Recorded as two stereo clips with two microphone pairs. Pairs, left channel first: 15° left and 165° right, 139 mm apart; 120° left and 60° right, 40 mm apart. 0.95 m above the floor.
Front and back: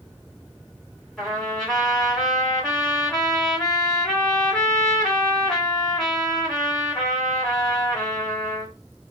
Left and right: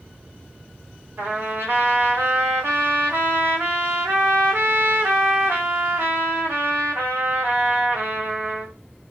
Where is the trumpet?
70° right, 1.6 m.